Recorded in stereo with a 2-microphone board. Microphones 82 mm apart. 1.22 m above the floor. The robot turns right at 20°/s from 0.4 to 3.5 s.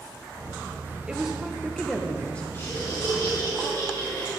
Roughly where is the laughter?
Left.